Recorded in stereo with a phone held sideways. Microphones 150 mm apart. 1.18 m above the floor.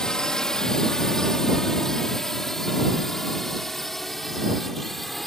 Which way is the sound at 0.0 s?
5° left (ahead or behind).